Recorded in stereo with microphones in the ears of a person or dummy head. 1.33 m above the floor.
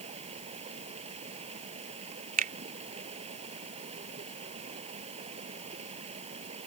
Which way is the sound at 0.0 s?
35° right (ahead or behind).